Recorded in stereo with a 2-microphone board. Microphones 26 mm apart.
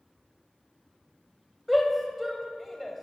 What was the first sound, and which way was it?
A shout, 5° right (ahead or behind).